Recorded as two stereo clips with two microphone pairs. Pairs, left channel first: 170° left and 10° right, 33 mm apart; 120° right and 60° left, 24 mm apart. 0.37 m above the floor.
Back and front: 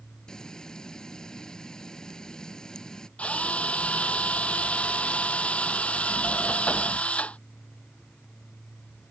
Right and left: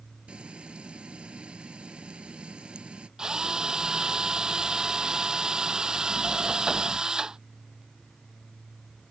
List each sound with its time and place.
0.3 s frying: 100° left
3.2 s a drill: 120° left